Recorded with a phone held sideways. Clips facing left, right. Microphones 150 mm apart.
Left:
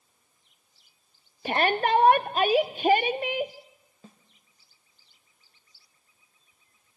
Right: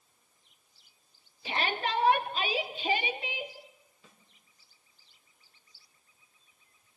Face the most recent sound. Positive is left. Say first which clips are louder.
# left 10 dB
turn(degrees=40)  # may be behind; listen again after turning